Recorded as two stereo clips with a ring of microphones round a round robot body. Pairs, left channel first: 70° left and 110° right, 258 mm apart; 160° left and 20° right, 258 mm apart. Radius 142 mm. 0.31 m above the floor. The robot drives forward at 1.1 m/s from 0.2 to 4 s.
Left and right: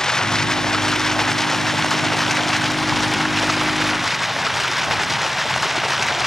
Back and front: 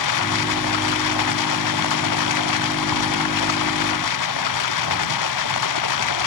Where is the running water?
155° left; by 6.3 s 160° left.